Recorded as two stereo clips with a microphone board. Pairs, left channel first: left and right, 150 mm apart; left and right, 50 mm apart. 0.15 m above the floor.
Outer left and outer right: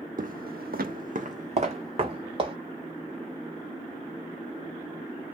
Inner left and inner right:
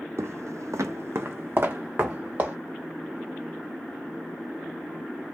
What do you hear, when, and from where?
0.2 s footsteps: 65° right (ahead or behind), 0.5 m; by 2.5 s 35° right (ahead or behind), 1.4 m